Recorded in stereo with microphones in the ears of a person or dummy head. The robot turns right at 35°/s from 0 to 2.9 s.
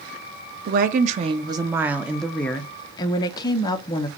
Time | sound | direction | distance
0.7 | a woman speaking | 50° right | 0.6 m